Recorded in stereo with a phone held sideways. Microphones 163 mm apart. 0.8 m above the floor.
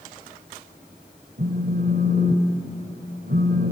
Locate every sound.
1.4 s a phone buzzing: 85° right, 1.9 m